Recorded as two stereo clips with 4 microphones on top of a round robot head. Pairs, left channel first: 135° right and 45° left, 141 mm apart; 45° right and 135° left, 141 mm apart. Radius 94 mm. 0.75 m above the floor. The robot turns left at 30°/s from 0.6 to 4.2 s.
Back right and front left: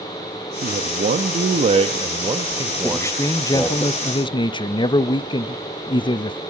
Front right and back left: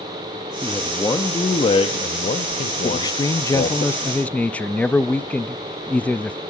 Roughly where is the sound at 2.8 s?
Right.